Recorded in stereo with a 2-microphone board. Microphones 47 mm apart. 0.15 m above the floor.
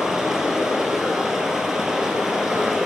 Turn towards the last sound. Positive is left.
turn(degrees=-10)  # may be behind; listen again after turning